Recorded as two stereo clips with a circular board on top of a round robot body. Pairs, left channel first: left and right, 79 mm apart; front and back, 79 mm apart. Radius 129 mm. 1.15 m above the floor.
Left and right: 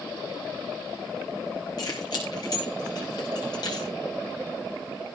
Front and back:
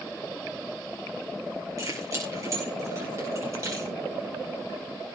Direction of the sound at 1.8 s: 130° left.